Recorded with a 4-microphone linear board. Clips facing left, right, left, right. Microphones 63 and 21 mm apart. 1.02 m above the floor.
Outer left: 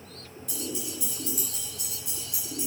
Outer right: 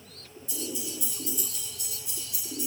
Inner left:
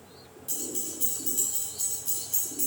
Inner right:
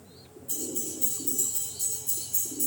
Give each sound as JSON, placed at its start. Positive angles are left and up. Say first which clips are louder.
{"t": 0.5, "sound": "keys jangling", "louder": "outer left 1 dB, inner right 1 dB", "side_deg": 70, "distance_m": 3.5}